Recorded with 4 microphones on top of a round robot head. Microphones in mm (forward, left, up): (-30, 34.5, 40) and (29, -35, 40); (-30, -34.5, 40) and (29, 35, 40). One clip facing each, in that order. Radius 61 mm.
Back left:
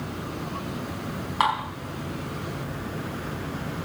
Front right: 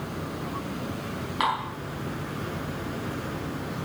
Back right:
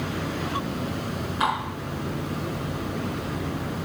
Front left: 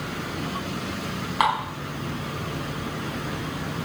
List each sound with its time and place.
1.4 s dishes clattering: 75° left, 4 m